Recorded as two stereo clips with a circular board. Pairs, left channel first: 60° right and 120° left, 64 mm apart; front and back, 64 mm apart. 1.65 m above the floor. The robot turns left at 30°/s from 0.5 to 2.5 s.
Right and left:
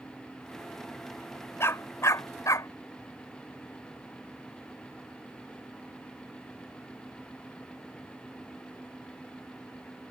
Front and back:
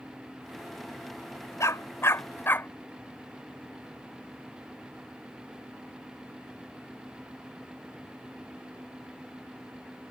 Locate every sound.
1.6 s a dog barking: 25° right; by 2.7 s 50° right